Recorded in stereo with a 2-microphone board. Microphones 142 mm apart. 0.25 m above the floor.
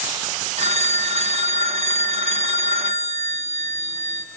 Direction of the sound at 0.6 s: 50° right (ahead or behind).